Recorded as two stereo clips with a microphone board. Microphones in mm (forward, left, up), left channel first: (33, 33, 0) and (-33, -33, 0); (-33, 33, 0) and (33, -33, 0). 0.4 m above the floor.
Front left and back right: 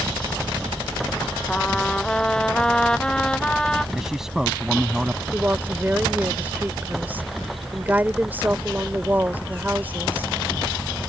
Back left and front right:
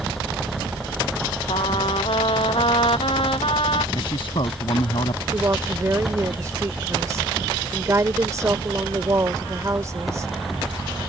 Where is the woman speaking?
75° right.